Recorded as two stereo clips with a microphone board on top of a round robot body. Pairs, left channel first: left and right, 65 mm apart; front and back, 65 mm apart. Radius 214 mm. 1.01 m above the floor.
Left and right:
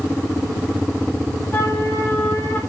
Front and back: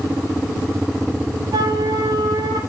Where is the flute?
150° left, 2.5 m.